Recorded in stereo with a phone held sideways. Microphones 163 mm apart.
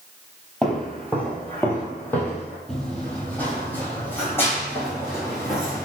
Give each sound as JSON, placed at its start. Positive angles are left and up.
{"t": 0.6, "sound": "footsteps", "side_deg": 0, "distance_m": 1.4}
{"t": 2.7, "sound": "running footsteps", "side_deg": 5, "distance_m": 1.5}